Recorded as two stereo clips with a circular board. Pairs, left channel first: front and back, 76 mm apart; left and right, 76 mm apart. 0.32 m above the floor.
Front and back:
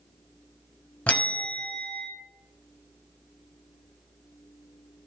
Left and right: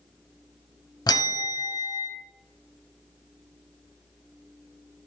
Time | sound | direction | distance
1.1 | a bell | 70° left | 0.7 m